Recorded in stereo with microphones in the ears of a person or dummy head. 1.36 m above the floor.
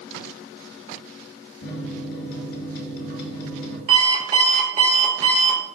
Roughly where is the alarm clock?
Right.